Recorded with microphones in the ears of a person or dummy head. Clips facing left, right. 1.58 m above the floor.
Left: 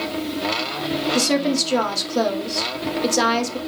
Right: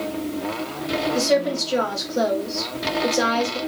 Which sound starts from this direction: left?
A woman speaking, at 1.1 s.